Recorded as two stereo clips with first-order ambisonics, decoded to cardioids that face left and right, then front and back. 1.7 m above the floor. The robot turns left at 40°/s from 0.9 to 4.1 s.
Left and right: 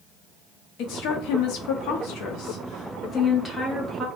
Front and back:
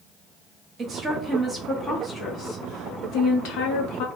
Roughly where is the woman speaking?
Behind left.